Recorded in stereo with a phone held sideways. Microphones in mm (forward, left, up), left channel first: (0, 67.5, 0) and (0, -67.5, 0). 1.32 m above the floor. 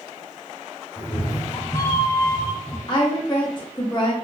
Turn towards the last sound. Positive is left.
turn(degrees=35)  # may be behind; listen again after turning